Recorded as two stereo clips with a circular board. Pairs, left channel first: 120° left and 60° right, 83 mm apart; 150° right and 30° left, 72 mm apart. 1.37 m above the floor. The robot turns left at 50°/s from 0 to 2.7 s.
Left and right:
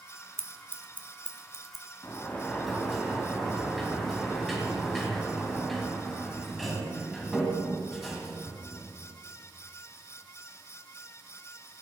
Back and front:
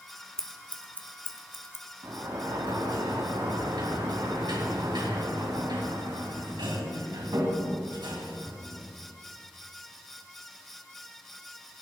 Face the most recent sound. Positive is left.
turn(degrees=30)